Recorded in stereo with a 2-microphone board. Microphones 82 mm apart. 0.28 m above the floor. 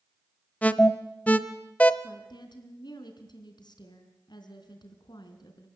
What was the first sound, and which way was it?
An alarm, 20° left (ahead or behind).